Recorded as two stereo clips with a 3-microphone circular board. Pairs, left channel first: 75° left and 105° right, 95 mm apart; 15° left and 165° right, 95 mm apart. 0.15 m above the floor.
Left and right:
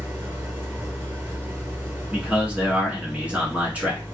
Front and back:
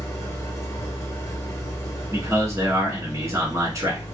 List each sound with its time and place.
0.0 s an engine running: 40° right, 1.1 m
2.1 s a man speaking: 170° right, 1.2 m